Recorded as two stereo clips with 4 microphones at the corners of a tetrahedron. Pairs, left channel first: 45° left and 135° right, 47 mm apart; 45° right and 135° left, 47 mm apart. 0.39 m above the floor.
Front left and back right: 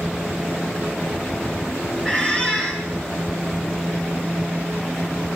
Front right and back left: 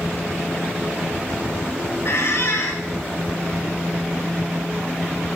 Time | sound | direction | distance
2.0 | a squeak | 20° right | 2.5 m